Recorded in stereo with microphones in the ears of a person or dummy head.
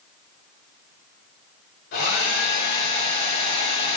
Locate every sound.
1.9 s a hair dryer: 65° left (ahead or behind), 4 m